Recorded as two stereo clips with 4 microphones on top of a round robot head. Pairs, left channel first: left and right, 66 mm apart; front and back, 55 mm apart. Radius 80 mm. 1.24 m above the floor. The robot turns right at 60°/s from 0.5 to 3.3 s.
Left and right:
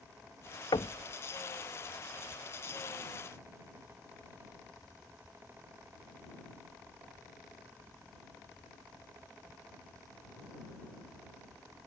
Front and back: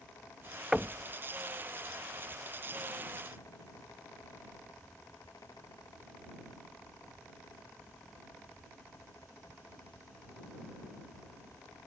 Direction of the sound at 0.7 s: 95° left.